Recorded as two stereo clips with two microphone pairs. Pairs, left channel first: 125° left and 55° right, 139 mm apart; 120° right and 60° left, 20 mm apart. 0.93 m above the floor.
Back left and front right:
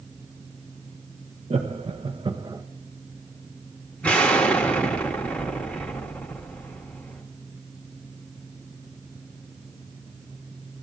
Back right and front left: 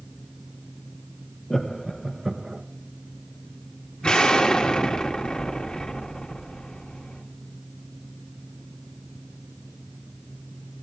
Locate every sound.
1.5 s laughter: 75° right, 0.8 m; by 2.6 s straight ahead, 0.8 m
4.0 s an explosion: 155° right, 1.2 m